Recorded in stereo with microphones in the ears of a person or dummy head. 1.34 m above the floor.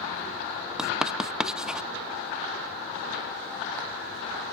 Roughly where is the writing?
Centre.